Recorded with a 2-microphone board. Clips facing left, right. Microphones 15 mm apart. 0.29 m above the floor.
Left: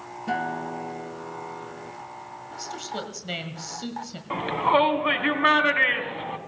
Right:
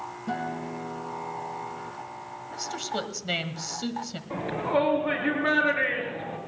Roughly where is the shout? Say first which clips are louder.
Left 5 dB; left.